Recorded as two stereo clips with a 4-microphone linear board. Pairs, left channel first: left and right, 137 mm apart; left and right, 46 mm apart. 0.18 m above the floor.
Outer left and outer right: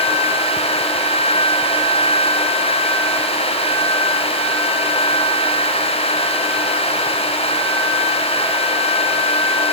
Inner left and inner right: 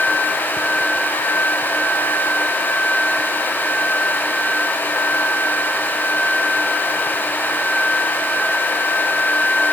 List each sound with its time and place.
Only background noise.